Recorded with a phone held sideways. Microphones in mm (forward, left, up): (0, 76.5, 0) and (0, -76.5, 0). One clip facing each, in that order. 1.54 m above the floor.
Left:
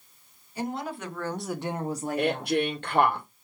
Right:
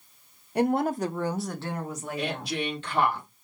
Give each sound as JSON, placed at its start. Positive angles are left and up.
{"t": 0.6, "sound": "a woman speaking", "side_deg": -65, "distance_m": 0.7}
{"t": 2.2, "sound": "a woman speaking", "side_deg": 55, "distance_m": 1.4}